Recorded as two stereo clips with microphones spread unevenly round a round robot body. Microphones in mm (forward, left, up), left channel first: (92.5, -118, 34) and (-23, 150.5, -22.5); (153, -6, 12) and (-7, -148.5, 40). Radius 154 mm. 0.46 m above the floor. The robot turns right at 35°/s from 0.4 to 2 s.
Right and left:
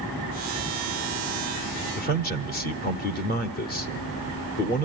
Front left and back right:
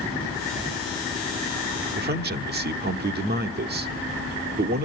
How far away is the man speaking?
About 0.8 m.